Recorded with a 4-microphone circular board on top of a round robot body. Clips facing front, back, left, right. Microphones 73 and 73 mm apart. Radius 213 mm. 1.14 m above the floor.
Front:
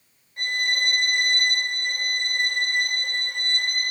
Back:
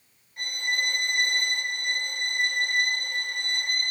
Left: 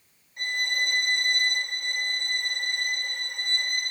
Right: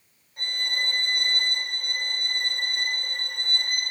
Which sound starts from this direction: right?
A violin, at 0.4 s.